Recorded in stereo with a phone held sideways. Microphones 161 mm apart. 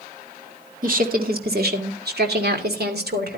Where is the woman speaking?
60° right (ahead or behind), 2.5 m; by 3.4 s 80° right, 3.5 m.